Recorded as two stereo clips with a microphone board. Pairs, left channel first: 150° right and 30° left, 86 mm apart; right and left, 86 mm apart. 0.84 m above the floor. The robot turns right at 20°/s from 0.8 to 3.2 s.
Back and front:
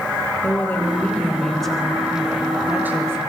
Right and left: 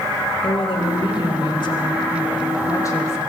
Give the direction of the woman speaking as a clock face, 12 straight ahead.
3 o'clock.